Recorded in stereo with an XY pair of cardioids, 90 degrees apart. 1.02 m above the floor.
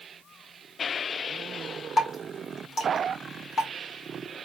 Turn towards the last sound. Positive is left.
turn(degrees=50)